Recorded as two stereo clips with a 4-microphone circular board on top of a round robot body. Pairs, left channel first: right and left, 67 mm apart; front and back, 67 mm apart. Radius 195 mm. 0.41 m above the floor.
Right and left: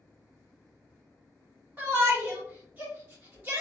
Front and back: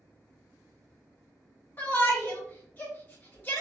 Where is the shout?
40° left, 1.6 m.